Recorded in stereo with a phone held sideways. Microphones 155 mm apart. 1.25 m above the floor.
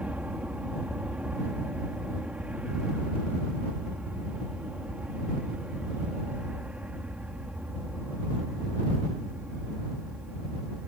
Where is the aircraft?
10° right (ahead or behind).